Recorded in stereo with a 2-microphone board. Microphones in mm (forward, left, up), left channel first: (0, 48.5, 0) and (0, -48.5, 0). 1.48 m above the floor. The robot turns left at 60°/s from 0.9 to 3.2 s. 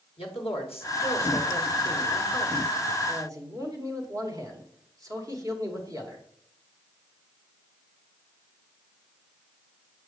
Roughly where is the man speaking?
Left.